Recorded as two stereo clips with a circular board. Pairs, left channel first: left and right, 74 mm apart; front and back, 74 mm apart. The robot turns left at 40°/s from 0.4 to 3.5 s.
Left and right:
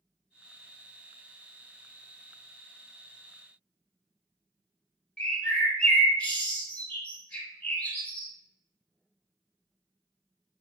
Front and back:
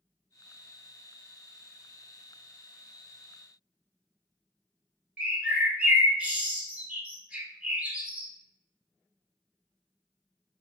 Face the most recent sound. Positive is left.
turn(degrees=140)